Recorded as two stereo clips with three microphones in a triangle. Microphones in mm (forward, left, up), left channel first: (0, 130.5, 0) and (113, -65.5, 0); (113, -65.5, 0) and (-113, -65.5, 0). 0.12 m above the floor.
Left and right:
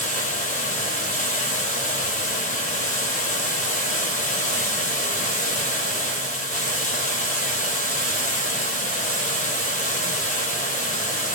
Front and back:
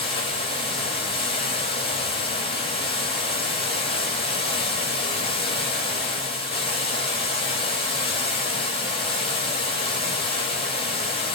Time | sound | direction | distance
0.0 | running water | 65° left | 0.8 m